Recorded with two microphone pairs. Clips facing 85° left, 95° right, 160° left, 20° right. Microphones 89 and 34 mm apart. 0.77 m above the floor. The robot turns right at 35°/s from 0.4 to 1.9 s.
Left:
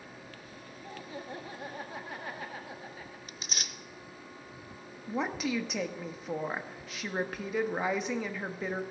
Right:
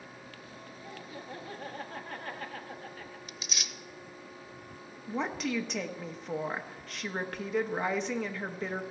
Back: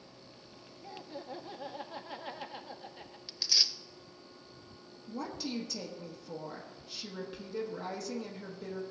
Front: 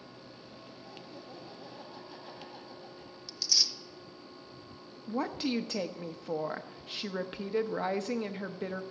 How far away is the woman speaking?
About 0.9 m.